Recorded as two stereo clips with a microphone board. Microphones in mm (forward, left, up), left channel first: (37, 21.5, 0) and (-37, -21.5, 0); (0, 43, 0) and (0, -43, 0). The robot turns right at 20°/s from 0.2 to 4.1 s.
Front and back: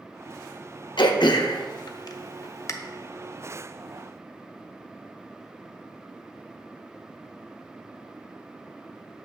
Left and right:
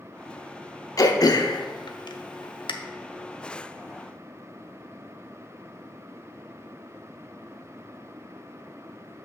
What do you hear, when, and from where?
1.0 s throat clearing: 45° left, 0.6 m; by 2.7 s 80° left, 0.6 m